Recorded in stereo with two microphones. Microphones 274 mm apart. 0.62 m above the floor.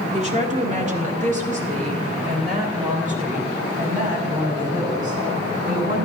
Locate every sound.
0.1 s a woman speaking: 25° right (ahead or behind), 1.6 m; by 6.1 s 30° right (ahead or behind), 5 m